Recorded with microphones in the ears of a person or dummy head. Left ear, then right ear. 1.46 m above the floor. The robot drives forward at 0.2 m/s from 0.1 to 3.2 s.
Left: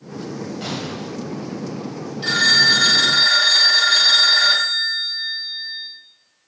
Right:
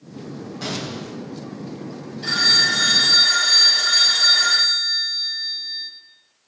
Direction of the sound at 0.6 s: 5° left (ahead or behind).